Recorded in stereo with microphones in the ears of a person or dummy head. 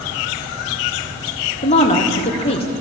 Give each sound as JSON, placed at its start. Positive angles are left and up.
{"t": 1.6, "sound": "a woman speaking", "side_deg": 35, "distance_m": 0.9}